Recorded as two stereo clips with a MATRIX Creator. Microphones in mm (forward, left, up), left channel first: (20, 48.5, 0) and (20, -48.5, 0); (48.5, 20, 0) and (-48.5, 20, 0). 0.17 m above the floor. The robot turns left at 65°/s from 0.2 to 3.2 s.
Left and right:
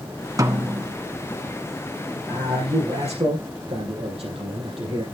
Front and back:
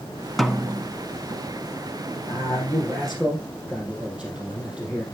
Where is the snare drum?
85° right, 0.9 m; by 0.9 s 120° right, 0.9 m.